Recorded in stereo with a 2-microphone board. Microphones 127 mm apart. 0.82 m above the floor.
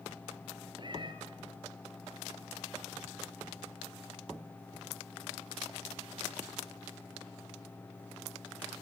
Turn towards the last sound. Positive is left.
turn(degrees=-40)  # may be behind; listen again after turning